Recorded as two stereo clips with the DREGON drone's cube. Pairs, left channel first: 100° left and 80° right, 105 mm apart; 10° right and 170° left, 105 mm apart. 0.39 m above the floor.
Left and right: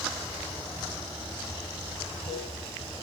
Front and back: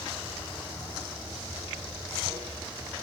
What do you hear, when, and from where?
0.0 s running water: 105° left, 4.5 m